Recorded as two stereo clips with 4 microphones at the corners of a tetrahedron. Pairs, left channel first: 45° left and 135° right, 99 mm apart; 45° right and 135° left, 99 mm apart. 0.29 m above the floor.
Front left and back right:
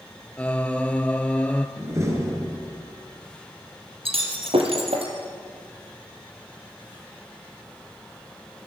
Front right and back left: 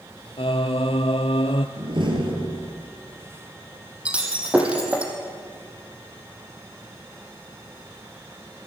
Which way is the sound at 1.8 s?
165° left.